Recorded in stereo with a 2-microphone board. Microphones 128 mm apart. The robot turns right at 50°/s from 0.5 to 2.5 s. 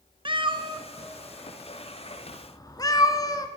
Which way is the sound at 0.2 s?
40° right (ahead or behind).